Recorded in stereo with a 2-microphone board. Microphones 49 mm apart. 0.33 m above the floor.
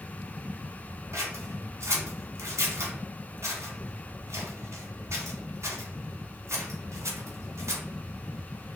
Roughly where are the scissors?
Right.